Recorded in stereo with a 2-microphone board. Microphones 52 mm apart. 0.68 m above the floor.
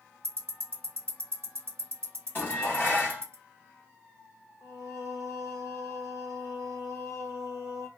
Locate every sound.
0.2 s ticking: 50° right (ahead or behind), 0.8 m
2.4 s dishes clattering: 40° left (ahead or behind), 1.2 m
4.6 s singing: 75° left (ahead or behind), 0.6 m